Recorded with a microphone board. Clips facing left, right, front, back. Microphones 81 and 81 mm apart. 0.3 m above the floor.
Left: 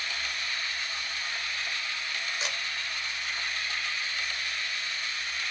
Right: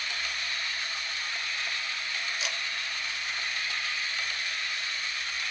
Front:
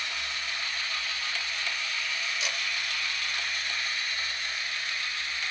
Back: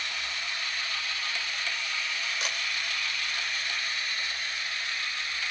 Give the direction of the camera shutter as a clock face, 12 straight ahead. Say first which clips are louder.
Left 1 dB, even; 7 o'clock.